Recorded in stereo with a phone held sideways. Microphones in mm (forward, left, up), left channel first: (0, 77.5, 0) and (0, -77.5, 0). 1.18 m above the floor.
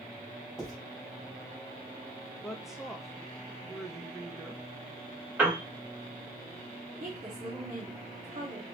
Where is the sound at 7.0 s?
55° right (ahead or behind), 1.1 m.